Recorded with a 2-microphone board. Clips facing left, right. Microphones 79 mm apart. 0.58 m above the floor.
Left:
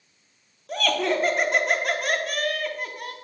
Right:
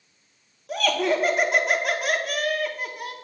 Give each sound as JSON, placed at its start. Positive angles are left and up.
{"t": 0.7, "sound": "laughter", "side_deg": -5, "distance_m": 0.8}